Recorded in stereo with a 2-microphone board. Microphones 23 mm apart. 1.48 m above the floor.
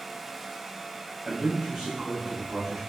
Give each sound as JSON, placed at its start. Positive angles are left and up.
{"t": 1.2, "sound": "a man speaking", "side_deg": -80, "distance_m": 0.8}